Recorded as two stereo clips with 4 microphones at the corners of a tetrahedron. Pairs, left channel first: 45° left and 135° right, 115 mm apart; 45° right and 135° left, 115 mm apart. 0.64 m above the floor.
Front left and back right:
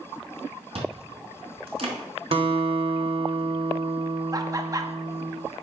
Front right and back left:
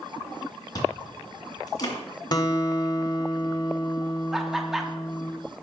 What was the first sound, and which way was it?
Chewing, 100° right.